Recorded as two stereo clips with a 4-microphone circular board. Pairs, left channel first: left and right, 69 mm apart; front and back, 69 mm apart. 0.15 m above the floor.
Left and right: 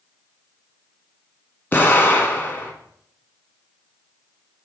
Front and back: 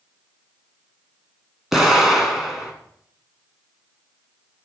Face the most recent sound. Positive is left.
turn(degrees=100)